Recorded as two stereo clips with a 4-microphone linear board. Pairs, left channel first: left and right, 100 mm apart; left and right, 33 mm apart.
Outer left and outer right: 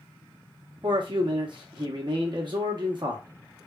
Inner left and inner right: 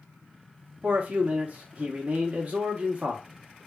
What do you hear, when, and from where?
0.8 s a man speaking: 50° right (ahead or behind), 0.7 m